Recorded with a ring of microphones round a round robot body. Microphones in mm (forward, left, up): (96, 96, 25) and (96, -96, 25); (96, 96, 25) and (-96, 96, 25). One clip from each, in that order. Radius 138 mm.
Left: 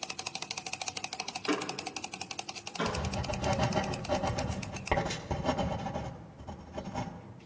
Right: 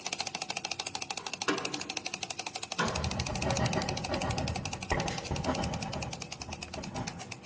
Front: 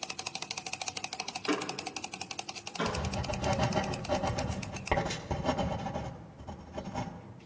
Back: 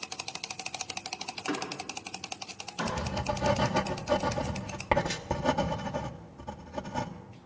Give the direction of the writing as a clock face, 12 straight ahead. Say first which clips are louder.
Even, back 3 dB; 7 o'clock.